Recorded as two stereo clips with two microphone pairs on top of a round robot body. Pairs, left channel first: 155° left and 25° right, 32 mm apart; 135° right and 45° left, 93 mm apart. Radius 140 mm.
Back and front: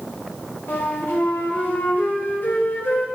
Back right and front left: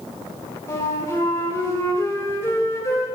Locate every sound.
0.7 s a flute: 165° left, 2.0 m